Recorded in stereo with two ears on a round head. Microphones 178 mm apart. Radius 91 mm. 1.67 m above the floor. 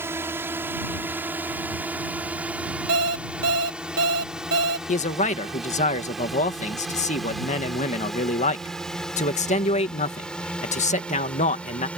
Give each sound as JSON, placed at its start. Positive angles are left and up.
{"t": 0.0, "sound": "a drone", "side_deg": -15}
{"t": 2.9, "sound": "an alarm clock", "side_deg": -60}
{"t": 4.9, "sound": "a man speaking", "side_deg": 40}